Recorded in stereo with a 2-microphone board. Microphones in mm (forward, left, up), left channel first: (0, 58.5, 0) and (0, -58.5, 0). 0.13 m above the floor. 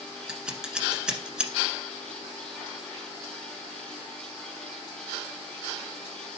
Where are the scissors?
5° right (ahead or behind), 1.4 m.